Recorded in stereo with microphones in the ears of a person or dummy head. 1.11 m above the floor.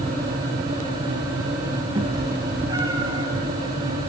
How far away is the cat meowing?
About 6.5 m.